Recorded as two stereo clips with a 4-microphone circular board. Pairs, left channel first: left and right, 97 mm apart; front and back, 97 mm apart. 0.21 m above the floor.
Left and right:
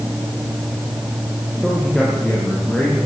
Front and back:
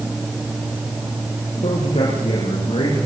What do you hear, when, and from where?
1.6 s a man speaking: straight ahead, 7.5 m; by 3.0 s 10° left, 9 m